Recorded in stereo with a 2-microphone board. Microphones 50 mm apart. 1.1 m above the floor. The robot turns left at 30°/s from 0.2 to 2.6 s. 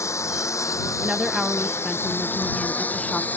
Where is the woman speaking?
155° right; by 3.3 s 155° left.